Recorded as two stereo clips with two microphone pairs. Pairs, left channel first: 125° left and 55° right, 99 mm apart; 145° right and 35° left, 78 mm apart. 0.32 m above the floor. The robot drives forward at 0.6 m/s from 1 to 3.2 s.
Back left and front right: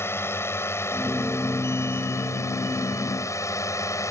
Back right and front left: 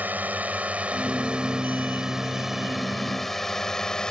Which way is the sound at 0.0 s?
85° left.